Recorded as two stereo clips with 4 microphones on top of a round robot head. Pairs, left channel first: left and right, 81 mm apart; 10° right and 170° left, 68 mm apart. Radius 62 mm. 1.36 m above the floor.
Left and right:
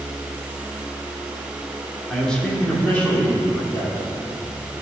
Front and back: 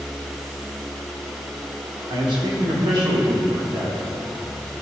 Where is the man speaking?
170° left, 1.3 m; by 4.1 s 155° left, 2.5 m.